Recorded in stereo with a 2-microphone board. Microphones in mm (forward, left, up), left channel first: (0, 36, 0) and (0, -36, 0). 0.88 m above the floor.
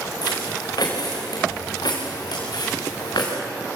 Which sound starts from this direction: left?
Footsteps, at 0.2 s.